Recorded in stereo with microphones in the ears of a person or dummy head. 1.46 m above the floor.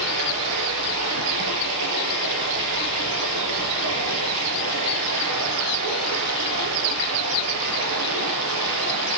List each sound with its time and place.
0.0 s running water: 75° right (ahead or behind), 6 m